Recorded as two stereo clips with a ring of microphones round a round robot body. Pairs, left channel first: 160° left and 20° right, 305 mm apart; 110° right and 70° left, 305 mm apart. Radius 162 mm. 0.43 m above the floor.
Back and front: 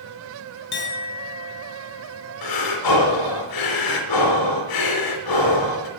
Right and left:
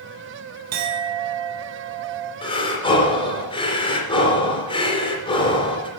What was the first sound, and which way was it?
A clink, 105° left.